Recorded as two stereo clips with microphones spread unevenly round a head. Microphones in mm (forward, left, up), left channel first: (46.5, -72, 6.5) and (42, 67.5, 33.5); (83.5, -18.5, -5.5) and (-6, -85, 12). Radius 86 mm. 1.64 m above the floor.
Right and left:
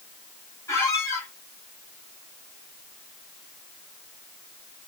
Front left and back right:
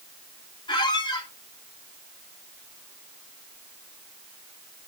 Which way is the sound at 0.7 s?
15° right.